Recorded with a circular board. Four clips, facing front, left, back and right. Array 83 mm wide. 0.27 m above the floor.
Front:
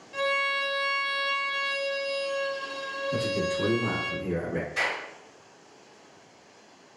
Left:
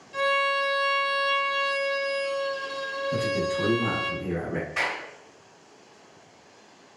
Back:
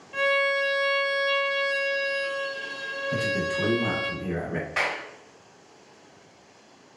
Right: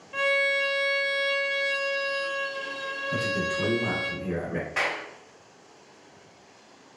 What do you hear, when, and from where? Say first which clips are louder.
0.1 s a violin: left 1 dB, back 4 dB; 125° right, 0.8 m
3.1 s a man speaking: left 2 dB, back 1 dB; 175° right, 1.6 m
4.8 s a clap: right 1 dB, back 2 dB; 160° right, 1.7 m